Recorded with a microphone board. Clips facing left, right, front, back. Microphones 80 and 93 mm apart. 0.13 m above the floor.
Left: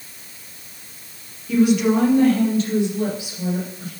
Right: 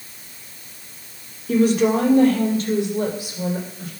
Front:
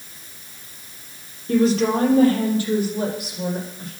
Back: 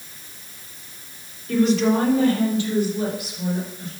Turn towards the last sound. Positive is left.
turn(degrees=-45)